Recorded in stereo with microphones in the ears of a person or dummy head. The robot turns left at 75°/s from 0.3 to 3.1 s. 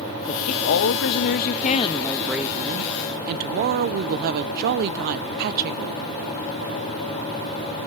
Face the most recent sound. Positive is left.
turn(degrees=-60)